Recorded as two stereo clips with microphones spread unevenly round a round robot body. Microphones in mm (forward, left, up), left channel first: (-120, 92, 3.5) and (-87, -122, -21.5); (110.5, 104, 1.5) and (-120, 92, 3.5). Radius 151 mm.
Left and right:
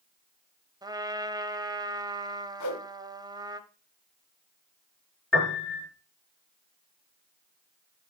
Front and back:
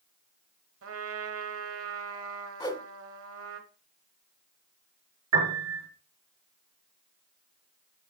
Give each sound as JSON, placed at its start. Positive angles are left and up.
{"t": 0.8, "sound": "a trumpet", "azimuth_deg": -150, "distance_m": 1.2}
{"t": 2.6, "sound": "a whoosh", "azimuth_deg": 75, "distance_m": 1.6}
{"t": 5.3, "sound": "a piano", "azimuth_deg": -175, "distance_m": 5.0}